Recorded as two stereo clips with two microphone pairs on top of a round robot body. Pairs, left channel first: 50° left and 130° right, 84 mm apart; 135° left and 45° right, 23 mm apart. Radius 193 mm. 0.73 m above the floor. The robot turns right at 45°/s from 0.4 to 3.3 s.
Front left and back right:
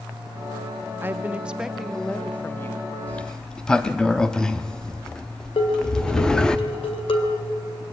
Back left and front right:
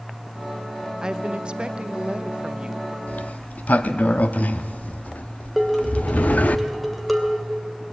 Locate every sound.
1.0 s a woman speaking: 85° right, 1.0 m; by 3.0 s 5° left, 1.0 m
3.1 s a sliding door: 125° left, 0.6 m; by 6.6 s 135° left, 0.6 m
5.6 s dishes clattering: 50° left, 2.5 m